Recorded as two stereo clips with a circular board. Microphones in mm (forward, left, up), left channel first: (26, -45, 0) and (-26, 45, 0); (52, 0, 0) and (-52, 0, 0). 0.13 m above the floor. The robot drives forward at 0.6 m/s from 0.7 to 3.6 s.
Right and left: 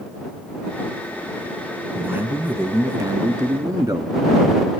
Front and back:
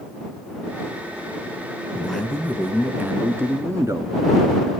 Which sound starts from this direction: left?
A man speaking, at 1.9 s.